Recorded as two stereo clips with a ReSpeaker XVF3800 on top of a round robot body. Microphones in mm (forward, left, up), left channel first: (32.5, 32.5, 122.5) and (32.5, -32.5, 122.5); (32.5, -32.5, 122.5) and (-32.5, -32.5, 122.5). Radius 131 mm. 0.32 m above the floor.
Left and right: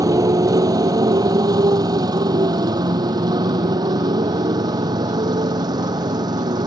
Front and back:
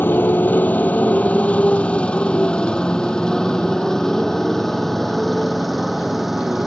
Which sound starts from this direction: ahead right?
A motorcycle, at 0.0 s.